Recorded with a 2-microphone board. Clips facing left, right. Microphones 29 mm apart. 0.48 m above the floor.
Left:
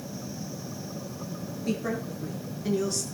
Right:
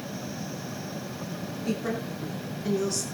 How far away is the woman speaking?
About 7.5 m.